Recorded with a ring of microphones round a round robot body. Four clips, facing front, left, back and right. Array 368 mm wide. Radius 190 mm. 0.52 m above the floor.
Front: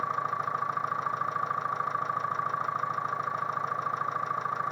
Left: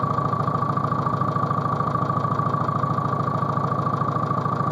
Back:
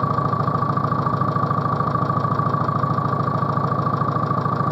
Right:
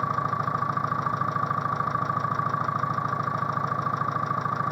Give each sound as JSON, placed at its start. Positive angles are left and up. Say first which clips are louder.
{"t": 0.0, "sound": "an engine running", "louder": "left 3 dB, back 9 dB", "azimuth_deg": 155}